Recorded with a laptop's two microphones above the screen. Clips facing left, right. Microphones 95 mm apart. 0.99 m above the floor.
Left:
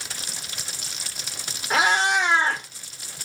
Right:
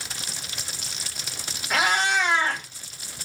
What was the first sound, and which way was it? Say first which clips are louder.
A cat meowing: left 2 dB; 30° left (ahead or behind).